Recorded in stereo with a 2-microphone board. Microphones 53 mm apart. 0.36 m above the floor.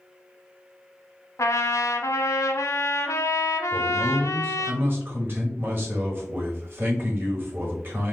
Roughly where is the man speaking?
Right.